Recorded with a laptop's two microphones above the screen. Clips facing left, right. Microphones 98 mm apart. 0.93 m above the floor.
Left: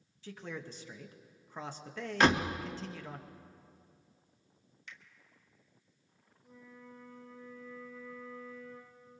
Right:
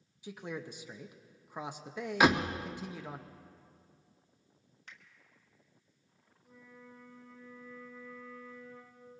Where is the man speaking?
15° right (ahead or behind), 0.8 m.